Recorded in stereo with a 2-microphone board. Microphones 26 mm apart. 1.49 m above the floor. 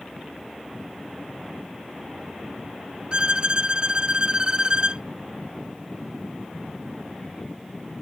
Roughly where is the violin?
Right.